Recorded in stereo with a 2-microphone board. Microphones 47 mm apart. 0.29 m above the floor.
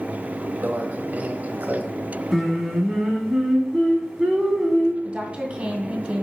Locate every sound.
0.6 s a microwave: 35° right (ahead or behind), 1.1 m
2.3 s singing: centre (ahead or behind), 1.7 m
5.0 s a woman speaking: 20° right (ahead or behind), 1.9 m